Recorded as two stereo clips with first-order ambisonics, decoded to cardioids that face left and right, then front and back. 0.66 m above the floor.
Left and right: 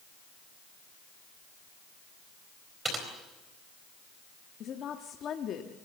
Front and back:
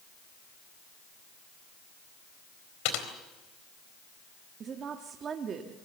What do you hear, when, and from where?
2.9 s typing on a keyboard: 15° right, 4 m
4.6 s a woman speaking: 130° left, 1.2 m